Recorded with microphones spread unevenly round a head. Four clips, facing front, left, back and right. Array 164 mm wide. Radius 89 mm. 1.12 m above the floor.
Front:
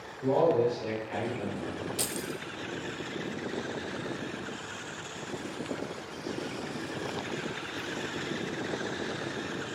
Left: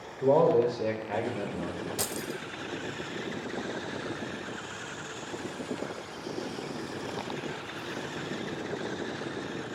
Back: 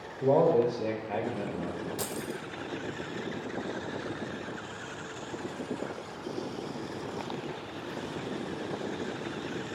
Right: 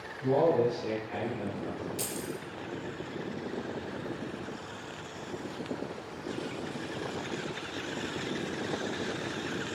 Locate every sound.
0.2 s a man speaking: 130° left, 1.1 m
2.0 s keys jangling: 70° left, 0.6 m